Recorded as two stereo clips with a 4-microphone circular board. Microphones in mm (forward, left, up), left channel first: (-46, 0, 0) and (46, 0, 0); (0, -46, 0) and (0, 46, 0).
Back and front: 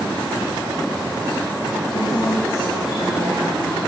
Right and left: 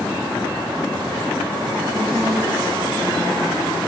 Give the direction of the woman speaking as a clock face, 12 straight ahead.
7 o'clock.